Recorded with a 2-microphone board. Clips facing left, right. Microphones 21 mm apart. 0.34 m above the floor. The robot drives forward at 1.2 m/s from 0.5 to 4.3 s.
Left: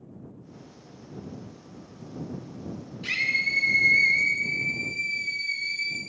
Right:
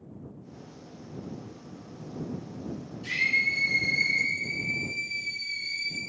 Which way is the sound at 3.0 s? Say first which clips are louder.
Even; 55° left (ahead or behind).